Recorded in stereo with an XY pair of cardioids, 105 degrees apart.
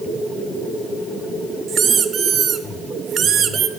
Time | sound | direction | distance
1.7 | a squeak | 65° right | 1.0 m